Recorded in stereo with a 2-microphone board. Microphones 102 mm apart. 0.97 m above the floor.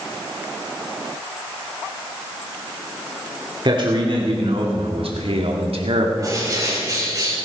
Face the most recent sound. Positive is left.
turn(degrees=-35)  # may be behind; listen again after turning